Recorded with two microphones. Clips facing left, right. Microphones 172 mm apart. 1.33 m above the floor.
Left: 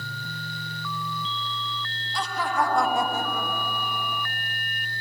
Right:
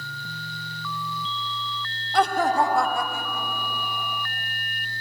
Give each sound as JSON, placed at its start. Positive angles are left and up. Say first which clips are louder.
{"t": 2.1, "sound": "laughter", "louder": "right 6 dB", "side_deg": -65, "distance_m": 1.0}